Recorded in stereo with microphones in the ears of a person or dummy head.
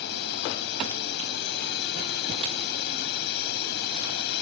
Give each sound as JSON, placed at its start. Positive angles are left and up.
{"t": 0.0, "sound": "a drone", "side_deg": 55}